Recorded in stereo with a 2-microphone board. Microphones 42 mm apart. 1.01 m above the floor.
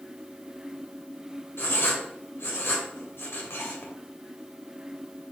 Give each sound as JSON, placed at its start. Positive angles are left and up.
{"t": 1.6, "sound": "writing", "side_deg": 75, "distance_m": 1.9}